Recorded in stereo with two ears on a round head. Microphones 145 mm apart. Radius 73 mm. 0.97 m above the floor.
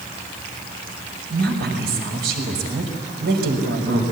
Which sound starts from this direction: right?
A woman speaking, at 1.3 s.